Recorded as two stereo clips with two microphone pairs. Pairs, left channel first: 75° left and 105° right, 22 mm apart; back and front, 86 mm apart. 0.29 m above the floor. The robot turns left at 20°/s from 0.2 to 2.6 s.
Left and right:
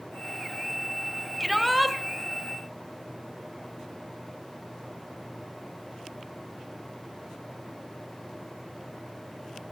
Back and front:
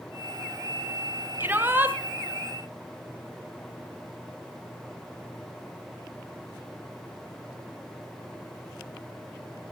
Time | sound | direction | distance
1.4 | a shout | 10° right | 1.5 m